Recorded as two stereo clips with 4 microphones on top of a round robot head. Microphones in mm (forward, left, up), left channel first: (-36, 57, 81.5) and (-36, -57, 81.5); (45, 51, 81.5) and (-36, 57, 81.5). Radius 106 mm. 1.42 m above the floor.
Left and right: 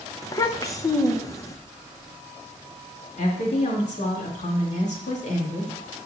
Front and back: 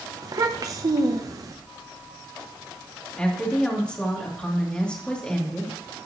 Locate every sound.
0.2 s a child speaking: 145° left, 0.7 m
3.2 s a woman speaking: 75° left, 2.5 m